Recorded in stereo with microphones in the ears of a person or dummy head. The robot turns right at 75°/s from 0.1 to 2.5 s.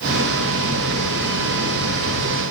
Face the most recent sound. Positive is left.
No sound to turn to.